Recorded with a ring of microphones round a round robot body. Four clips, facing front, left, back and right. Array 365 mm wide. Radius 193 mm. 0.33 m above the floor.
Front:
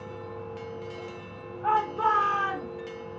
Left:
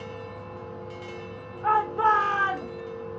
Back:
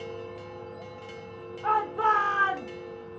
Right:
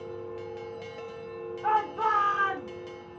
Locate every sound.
1.6 s a shout: 100° left, 1.2 m; by 2.7 s 125° left, 1.5 m